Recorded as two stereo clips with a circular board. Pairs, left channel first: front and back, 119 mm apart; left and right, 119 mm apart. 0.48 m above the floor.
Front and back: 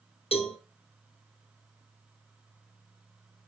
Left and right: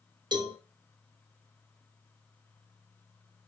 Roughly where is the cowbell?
Ahead right.